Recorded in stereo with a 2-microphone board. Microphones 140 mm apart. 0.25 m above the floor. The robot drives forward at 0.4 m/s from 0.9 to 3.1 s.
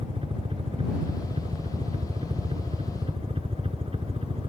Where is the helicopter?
40° right (ahead or behind).